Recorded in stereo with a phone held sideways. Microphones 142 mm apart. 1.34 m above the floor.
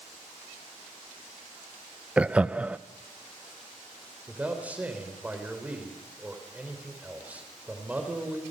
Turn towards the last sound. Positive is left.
turn(degrees=-10)  # may be behind; listen again after turning